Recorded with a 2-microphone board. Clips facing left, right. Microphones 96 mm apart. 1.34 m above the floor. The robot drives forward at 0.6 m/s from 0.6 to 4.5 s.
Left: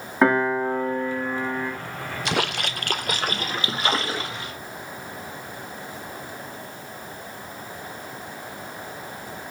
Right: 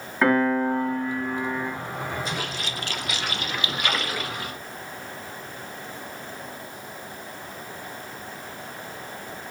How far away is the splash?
About 0.6 m.